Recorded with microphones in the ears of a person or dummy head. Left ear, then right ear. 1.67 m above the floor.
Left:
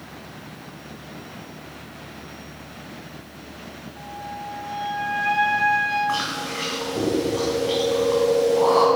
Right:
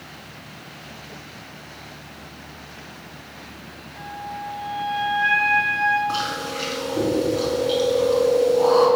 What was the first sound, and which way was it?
A flute, 10° right (ahead or behind).